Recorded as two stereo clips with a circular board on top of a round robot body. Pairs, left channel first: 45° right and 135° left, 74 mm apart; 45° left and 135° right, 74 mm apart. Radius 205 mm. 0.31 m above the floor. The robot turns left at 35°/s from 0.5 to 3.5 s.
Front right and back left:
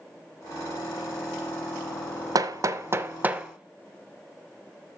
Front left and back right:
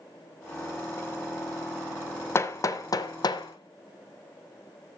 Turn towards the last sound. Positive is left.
turn(degrees=60)